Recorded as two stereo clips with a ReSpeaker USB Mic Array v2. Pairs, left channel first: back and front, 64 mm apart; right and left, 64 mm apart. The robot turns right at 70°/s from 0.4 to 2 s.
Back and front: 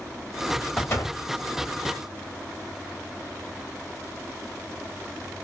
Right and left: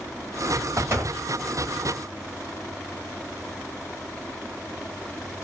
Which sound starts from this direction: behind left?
A door slam, at 0.8 s.